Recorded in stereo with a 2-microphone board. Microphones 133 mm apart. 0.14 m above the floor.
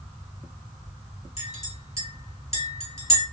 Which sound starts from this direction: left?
A clink, at 1.4 s.